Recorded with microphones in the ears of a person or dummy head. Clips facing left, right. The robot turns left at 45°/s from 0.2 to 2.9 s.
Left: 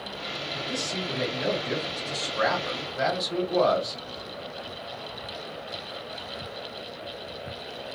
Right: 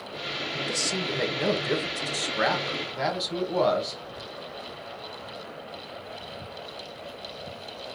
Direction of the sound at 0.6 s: 65° right.